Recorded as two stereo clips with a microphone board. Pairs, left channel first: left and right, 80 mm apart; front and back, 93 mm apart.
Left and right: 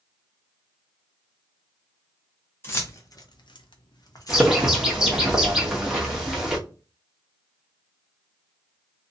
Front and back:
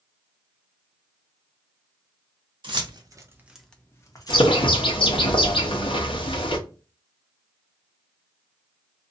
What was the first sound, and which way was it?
Keys jangling, 150° left.